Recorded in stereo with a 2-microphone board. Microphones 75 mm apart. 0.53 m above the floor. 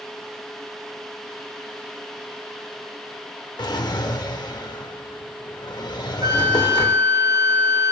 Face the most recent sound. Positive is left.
turn(degrees=-85)